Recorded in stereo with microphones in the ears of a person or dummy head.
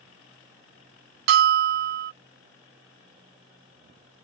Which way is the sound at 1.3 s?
45° right (ahead or behind).